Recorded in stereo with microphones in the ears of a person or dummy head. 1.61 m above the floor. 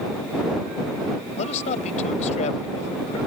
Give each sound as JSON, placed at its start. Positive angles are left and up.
{"t": 1.4, "sound": "a man speaking", "side_deg": 40}